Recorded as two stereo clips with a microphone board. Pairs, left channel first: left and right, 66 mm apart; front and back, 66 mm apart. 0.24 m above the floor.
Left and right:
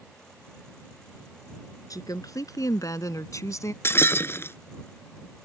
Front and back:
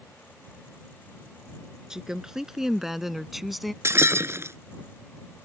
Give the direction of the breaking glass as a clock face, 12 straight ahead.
7 o'clock.